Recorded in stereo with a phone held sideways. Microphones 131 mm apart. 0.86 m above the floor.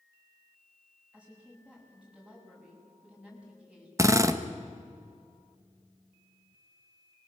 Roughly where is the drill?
Right.